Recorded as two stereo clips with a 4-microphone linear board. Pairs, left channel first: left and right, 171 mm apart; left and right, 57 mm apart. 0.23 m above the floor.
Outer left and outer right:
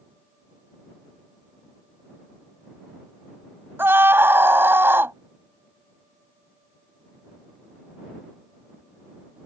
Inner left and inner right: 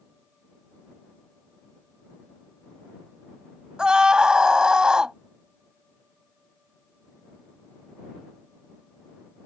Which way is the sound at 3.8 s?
15° right (ahead or behind).